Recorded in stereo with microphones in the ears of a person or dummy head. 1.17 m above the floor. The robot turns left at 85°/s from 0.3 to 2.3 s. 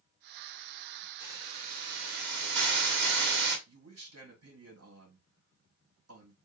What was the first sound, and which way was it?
A hiss, 10° right.